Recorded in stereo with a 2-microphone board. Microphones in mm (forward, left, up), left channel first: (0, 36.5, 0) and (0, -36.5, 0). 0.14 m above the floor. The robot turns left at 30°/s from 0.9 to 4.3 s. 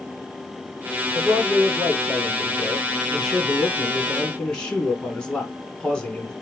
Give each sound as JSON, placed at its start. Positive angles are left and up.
{"t": 1.1, "sound": "a man speaking", "side_deg": -20, "distance_m": 1.1}